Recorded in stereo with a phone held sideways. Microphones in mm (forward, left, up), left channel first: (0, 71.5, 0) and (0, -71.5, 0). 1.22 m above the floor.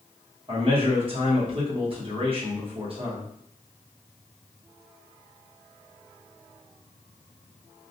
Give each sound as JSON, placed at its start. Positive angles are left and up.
{"t": 0.5, "sound": "a man speaking", "side_deg": -40, "distance_m": 1.0}